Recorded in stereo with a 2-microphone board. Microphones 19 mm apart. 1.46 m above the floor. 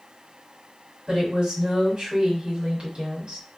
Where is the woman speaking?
50° right (ahead or behind), 1.3 m.